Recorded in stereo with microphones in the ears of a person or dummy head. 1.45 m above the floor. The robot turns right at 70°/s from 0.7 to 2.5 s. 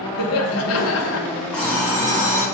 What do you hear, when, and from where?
0.2 s laughter: 90° left, 0.5 m; by 1.3 s 130° left, 0.5 m
1.5 s an alarm clock: 175° left, 1.0 m; by 2.4 s 125° right, 1.0 m